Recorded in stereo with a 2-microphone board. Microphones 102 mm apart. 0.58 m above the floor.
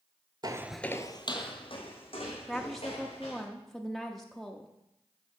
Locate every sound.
0.4 s footsteps: 45° right (ahead or behind), 0.7 m; by 3.4 s 65° left (ahead or behind), 4.5 m
2.5 s a woman speaking: centre (ahead or behind), 0.6 m